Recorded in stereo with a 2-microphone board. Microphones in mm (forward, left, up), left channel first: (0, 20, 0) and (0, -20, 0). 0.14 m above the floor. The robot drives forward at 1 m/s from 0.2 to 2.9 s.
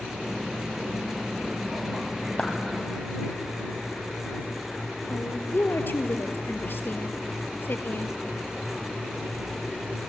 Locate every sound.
2.4 s a clap: 25° left (ahead or behind), 2 m
5.1 s a woman speaking: 60° left (ahead or behind), 2.5 m